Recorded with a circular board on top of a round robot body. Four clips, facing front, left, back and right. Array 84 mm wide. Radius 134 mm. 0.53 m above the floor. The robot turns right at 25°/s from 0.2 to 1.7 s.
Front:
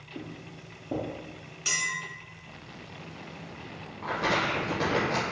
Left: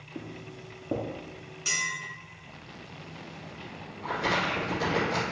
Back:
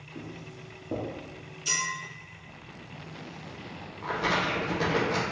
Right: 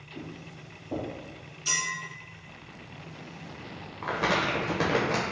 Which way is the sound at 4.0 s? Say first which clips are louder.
Right 1 dB, even; 90° right.